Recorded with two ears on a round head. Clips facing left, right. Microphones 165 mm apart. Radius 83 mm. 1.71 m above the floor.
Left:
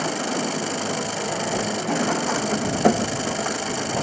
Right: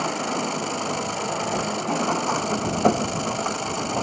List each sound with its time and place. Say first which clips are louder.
0.0 s an engine running: left 1 dB; 10° left (ahead or behind)